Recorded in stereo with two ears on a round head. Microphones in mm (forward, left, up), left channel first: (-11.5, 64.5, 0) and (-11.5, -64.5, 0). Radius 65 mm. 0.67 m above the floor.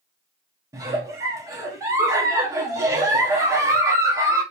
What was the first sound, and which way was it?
A giggle, 25° right (ahead or behind).